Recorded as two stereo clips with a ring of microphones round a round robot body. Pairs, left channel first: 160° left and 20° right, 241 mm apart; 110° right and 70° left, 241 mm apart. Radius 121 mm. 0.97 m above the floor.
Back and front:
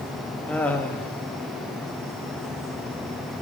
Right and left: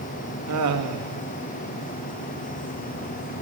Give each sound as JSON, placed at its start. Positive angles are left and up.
{"t": 0.5, "sound": "laughter", "azimuth_deg": 75, "distance_m": 1.6}